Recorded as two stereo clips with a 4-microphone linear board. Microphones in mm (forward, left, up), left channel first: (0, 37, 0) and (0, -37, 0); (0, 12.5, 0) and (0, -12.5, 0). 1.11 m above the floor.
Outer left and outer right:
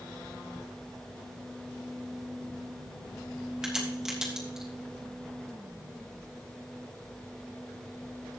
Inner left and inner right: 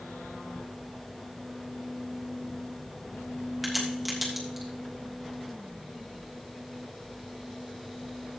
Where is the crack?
10° right (ahead or behind), 3 m.